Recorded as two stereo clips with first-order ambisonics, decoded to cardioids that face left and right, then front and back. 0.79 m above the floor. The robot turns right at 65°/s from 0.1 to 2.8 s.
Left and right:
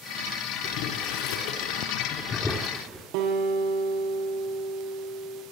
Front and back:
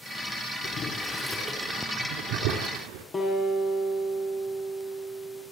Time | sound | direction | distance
0.6 | boiling | 50° left | 4.5 m
3.1 | a guitar | 75° right | 8 m